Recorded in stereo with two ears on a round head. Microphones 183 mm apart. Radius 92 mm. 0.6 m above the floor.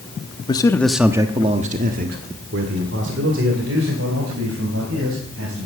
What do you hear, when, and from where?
0.5 s a man speaking: 25° left (ahead or behind), 1.0 m; by 5.7 s 75° right (ahead or behind), 4.5 m